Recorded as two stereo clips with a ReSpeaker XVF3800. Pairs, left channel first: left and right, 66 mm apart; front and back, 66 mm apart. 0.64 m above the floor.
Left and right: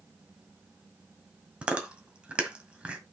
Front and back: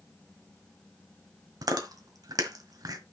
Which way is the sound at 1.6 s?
165° right.